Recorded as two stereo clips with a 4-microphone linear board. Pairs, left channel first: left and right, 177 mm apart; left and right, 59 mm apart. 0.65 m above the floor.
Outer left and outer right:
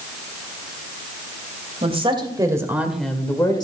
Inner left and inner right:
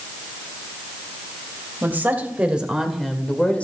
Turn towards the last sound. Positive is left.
turn(degrees=25)  # may be behind; listen again after turning